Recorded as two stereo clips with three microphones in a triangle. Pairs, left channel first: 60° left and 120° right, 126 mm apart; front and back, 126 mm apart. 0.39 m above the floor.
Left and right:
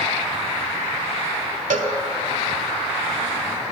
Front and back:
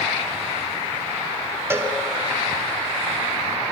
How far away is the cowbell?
About 0.9 m.